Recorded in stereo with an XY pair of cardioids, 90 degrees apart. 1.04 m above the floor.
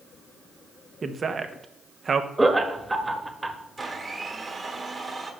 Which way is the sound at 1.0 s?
40° right.